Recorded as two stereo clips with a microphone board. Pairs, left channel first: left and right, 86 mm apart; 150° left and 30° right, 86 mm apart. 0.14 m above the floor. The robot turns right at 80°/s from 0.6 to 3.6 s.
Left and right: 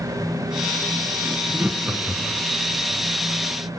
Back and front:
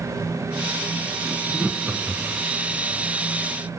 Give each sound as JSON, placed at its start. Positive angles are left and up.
{"t": 1.2, "sound": "laughter", "azimuth_deg": -105, "distance_m": 1.4}